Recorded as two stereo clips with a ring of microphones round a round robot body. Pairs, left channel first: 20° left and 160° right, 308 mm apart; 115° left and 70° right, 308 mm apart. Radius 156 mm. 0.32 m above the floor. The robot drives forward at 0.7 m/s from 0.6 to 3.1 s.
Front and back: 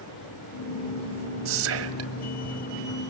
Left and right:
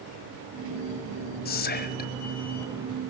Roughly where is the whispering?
Behind.